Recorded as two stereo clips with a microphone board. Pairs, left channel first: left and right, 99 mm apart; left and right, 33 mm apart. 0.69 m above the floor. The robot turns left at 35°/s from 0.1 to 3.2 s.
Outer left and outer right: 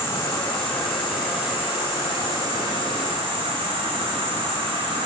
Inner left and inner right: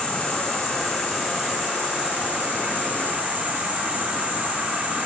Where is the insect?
25° left, 4 m; by 5.1 s 80° right, 4 m.